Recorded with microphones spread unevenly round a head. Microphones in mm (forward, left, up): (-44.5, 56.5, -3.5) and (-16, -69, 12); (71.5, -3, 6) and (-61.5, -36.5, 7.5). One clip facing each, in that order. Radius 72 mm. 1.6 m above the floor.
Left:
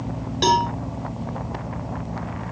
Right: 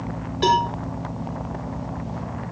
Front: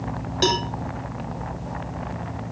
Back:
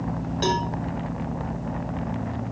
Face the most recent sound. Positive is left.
turn(degrees=50)